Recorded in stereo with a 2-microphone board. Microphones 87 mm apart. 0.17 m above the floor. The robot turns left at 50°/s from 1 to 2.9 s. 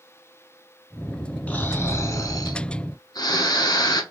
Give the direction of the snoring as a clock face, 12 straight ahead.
7 o'clock.